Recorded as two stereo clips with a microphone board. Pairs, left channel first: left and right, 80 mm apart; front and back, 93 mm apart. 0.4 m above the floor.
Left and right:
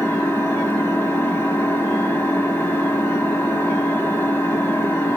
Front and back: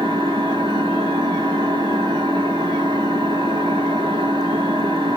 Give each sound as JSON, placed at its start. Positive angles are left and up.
{"t": 0.0, "sound": "an engine running", "azimuth_deg": 155, "distance_m": 2.5}